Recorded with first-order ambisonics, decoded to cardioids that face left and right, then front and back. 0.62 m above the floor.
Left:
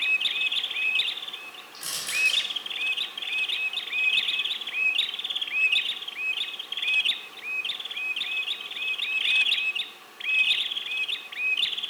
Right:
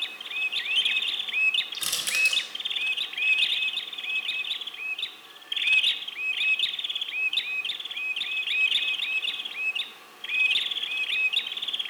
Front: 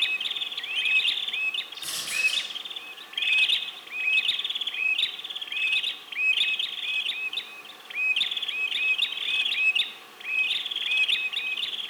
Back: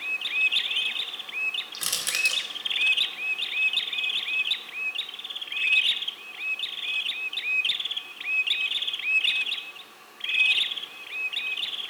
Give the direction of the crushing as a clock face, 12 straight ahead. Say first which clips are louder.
Right 2 dB, back 2 dB; 5 o'clock.